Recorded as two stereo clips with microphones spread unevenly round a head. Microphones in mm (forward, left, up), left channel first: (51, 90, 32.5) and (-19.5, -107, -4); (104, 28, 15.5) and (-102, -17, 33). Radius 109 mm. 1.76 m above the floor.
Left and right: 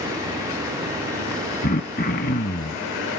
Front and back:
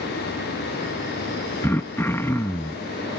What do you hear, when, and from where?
1.6 s throat clearing: 95° left